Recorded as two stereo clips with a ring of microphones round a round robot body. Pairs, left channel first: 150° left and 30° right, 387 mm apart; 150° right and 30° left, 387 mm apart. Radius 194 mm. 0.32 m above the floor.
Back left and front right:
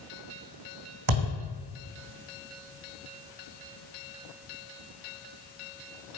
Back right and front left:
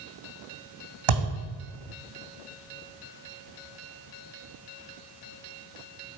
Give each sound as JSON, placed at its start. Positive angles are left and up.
{"t": 1.1, "sound": "a thud", "azimuth_deg": 10, "distance_m": 2.5}